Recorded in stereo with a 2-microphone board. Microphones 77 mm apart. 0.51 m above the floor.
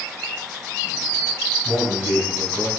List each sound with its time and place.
1.6 s a man speaking: 40° right (ahead or behind), 3 m; by 2.7 s 25° right (ahead or behind), 2.5 m